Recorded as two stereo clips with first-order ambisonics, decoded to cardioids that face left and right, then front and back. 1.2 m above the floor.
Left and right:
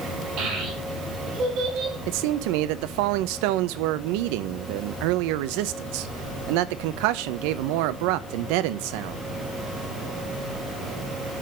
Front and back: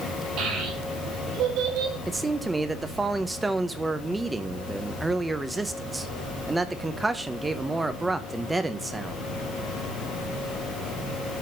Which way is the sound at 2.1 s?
100° right.